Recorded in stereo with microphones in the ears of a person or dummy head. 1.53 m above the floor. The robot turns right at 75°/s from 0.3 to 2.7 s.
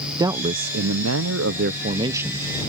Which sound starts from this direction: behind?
A man speaking, at 0.2 s.